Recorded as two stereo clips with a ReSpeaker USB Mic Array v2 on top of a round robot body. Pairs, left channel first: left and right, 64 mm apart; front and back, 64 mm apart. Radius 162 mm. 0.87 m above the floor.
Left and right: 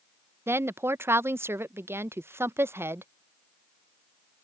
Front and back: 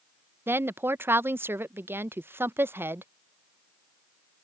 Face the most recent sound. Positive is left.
turn(degrees=-135)